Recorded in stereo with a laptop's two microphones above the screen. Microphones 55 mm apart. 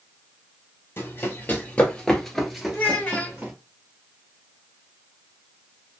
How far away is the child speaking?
About 1.3 m.